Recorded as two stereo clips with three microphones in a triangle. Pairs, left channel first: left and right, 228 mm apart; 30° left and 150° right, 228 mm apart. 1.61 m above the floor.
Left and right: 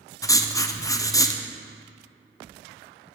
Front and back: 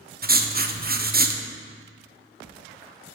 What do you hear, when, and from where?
0.2 s writing: 165° left, 0.7 m